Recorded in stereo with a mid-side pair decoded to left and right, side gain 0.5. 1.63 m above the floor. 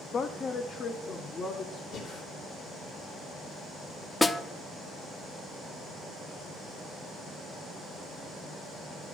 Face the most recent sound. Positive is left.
turn(degrees=15)